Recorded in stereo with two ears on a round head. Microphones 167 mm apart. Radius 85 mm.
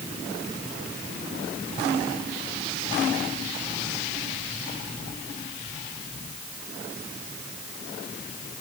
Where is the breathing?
No breathing in this recording.